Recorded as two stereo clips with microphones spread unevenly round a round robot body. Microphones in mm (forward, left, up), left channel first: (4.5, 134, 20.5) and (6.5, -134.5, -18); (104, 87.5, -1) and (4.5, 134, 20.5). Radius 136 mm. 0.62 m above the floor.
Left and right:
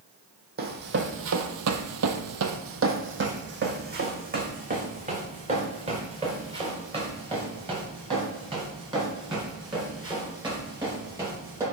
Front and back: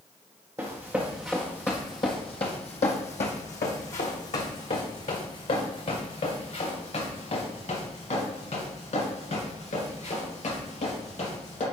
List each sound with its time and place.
0.6 s running footsteps: 145° right, 1.0 m; by 11.6 s 15° right, 5.5 m